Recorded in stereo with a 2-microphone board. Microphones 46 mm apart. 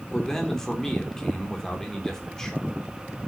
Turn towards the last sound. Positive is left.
turn(degrees=15)  # may be behind; listen again after turning